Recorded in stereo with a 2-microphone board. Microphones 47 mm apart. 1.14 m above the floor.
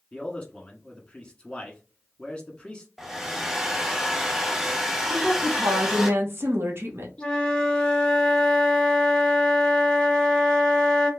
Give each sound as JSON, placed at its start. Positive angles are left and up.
{"t": 0.1, "sound": "a man speaking", "side_deg": 20, "distance_m": 1.3}
{"t": 3.0, "sound": "a hair dryer", "side_deg": -5, "distance_m": 0.6}
{"t": 5.1, "sound": "a woman speaking", "side_deg": -55, "distance_m": 0.7}
{"t": 7.2, "sound": "a flute", "side_deg": 20, "distance_m": 0.6}